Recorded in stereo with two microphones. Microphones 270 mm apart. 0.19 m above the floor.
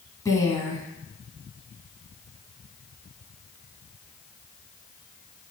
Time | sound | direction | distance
0.2 | a woman speaking | 10° left (ahead or behind) | 1.5 m